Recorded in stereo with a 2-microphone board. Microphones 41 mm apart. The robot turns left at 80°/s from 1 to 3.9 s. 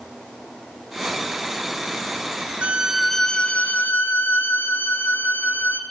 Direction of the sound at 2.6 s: 145° right.